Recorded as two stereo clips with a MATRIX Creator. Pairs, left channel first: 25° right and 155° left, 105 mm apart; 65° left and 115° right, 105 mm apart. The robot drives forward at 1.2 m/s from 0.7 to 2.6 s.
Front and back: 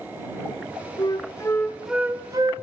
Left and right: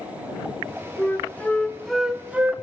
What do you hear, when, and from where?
1.0 s a flute: straight ahead, 1.3 m; by 2.5 s 175° left, 1.1 m